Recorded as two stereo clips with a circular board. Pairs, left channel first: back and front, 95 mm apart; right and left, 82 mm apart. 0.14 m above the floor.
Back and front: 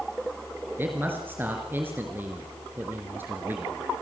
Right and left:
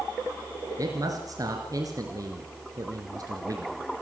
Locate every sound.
0.8 s a man speaking: 65° left, 2.5 m